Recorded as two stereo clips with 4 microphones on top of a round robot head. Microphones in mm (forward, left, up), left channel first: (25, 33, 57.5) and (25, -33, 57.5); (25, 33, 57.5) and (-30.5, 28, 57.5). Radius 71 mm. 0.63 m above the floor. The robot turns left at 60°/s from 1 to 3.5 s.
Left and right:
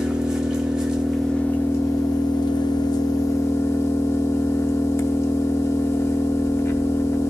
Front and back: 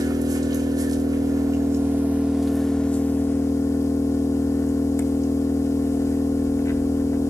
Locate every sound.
0.0 s an engine running: 170° right, 0.9 m; by 7.3 s 40° left, 0.9 m